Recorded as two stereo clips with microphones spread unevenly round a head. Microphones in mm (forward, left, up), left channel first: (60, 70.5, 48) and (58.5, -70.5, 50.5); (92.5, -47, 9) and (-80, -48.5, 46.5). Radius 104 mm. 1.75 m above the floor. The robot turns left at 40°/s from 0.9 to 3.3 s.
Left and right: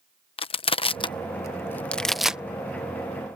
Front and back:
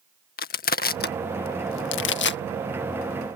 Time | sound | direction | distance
0.4 | crushing | 50° left | ?